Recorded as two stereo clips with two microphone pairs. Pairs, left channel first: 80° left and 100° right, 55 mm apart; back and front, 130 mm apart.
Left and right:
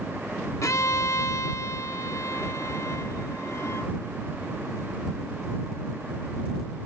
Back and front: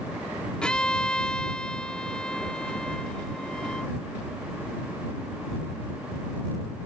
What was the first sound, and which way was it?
A violin, 95° left.